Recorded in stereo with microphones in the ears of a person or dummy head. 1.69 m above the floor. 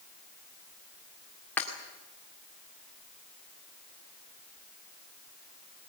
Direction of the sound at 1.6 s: 15° left (ahead or behind).